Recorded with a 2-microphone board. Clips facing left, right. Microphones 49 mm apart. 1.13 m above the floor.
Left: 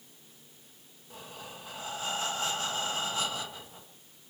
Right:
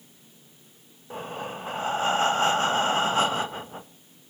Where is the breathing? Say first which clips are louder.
Right 11 dB; 40° right (ahead or behind), 1.2 m.